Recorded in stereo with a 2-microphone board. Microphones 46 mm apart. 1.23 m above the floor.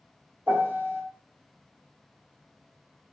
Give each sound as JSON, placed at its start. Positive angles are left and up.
{"t": 0.5, "sound": "a piano", "side_deg": -60, "distance_m": 1.9}